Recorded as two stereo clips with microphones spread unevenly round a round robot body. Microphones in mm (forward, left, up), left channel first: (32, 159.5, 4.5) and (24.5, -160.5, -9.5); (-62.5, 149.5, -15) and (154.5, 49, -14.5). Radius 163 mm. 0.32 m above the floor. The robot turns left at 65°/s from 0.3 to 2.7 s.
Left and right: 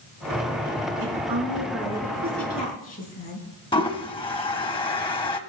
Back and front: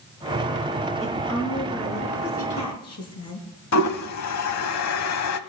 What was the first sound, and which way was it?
A woman speaking, 95° right.